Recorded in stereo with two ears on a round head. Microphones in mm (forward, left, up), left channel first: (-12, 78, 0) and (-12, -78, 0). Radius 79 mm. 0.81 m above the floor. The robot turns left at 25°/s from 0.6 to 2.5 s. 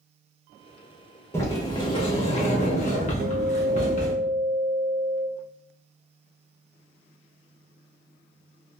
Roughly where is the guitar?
Right.